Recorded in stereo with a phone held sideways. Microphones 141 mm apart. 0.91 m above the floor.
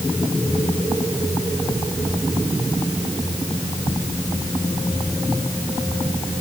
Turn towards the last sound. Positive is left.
No sound to turn to.